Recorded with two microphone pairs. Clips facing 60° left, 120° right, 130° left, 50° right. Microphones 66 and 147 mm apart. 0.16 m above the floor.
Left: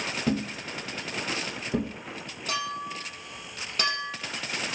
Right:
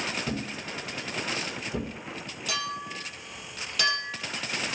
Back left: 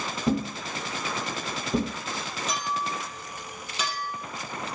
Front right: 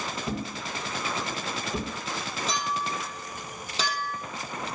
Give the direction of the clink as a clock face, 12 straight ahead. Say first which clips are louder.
Left 2 dB, even; 12 o'clock.